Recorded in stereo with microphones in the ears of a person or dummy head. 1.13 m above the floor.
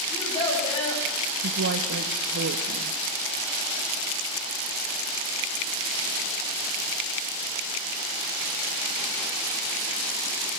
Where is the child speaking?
30° left (ahead or behind), 8 m.